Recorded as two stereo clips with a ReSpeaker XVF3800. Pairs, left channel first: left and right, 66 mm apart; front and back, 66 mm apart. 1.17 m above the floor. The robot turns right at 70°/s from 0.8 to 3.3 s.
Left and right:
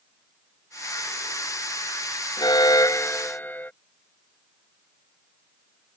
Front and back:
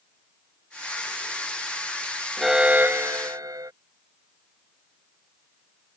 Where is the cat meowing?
I don't hear a cat meowing.